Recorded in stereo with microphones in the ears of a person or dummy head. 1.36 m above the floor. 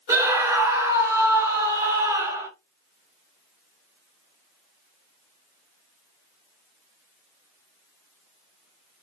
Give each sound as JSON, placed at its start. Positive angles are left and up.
{"t": 0.1, "sound": "a scream", "side_deg": -15, "distance_m": 1.3}